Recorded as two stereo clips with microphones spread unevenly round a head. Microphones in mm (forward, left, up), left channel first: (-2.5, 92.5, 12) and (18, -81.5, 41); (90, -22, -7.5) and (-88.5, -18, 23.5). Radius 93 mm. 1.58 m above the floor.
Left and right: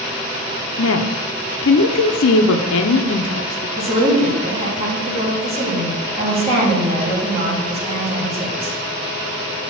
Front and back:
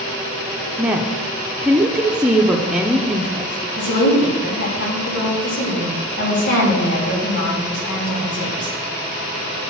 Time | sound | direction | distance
0.8 | a woman speaking | 100° left | 0.6 m
3.8 | a woman speaking | 25° right | 2.5 m